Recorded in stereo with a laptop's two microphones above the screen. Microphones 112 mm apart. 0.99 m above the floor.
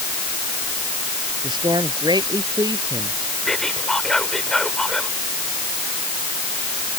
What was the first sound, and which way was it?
A man speaking, 40° right (ahead or behind).